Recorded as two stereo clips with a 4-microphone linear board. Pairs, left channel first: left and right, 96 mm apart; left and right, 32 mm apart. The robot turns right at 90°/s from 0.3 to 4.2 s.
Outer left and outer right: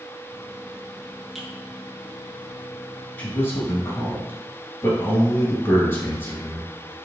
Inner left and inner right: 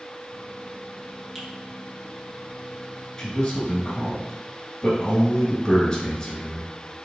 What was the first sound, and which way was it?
A finger snap, centre (ahead or behind).